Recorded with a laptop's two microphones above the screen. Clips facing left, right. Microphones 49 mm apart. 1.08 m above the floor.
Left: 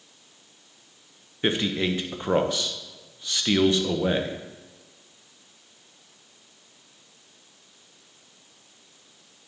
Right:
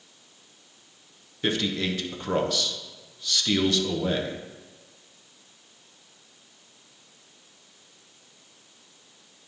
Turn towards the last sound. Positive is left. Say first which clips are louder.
# left 2 dB
turn(degrees=25)  # may be behind; listen again after turning